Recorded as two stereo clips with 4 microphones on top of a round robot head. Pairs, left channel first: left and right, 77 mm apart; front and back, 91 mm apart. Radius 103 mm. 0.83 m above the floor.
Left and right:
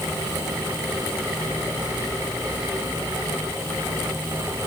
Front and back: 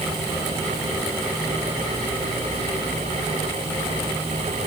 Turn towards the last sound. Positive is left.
No sound to turn to.